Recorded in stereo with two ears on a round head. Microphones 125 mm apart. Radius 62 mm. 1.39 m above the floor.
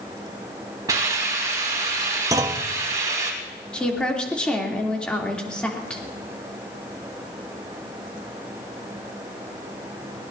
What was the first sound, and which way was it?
A hiss, 25° right (ahead or behind).